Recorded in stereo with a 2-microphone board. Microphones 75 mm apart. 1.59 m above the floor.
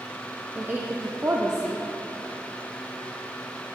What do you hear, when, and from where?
0.6 s a woman speaking: 30° right (ahead or behind), 0.6 m